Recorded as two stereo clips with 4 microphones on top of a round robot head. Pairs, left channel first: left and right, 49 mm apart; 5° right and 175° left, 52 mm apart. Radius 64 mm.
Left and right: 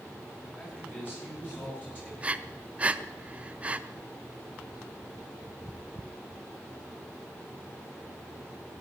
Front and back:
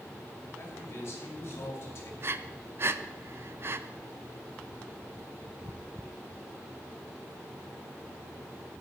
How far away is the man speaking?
About 5.5 m.